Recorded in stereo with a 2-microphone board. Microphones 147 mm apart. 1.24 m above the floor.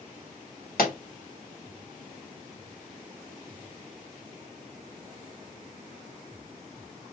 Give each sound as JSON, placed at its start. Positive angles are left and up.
{"t": 0.8, "sound": "a pop", "side_deg": 85, "distance_m": 1.5}